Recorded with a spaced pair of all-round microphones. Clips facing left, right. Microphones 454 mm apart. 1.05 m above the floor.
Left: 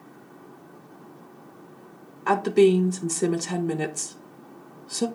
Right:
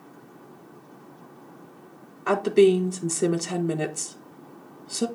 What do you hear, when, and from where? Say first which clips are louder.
2.3 s a woman speaking: even; 5° left (ahead or behind), 0.9 m